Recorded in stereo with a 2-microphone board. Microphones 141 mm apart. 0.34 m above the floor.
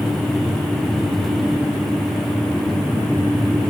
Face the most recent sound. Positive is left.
No sound to turn to.